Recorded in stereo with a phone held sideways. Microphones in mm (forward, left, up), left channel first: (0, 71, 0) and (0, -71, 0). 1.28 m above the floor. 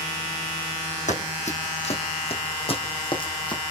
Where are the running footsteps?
55° left (ahead or behind), 3.5 m; by 3.7 s 35° left (ahead or behind), 4 m.